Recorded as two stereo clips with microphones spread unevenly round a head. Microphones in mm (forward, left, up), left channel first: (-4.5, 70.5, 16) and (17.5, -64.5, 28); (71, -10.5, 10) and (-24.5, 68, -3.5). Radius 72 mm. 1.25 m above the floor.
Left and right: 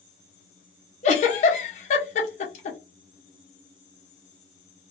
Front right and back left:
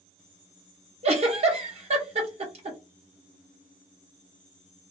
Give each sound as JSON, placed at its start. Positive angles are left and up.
{"t": 1.0, "sound": "a giggle", "azimuth_deg": 120, "distance_m": 0.9}